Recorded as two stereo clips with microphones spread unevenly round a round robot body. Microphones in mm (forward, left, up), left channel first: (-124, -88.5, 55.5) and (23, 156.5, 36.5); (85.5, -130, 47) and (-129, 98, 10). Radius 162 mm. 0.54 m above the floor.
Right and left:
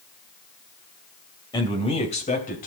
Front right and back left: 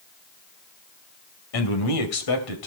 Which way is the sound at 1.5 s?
45° right.